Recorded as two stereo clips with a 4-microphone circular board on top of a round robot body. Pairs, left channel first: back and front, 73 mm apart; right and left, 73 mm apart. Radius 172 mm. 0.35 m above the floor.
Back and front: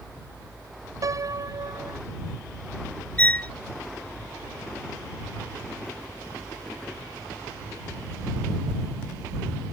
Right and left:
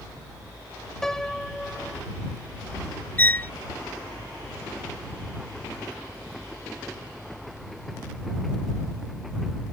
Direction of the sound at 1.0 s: 10° right.